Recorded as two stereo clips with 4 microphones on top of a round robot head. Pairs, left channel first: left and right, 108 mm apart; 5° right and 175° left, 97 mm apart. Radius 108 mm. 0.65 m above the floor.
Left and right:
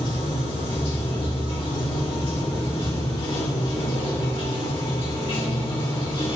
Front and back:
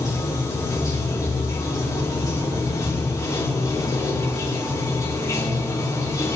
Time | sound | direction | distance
0.0 | running water | 50° left | 2.5 m